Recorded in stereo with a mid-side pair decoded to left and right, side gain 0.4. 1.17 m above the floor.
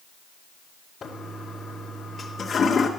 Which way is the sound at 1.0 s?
50° left.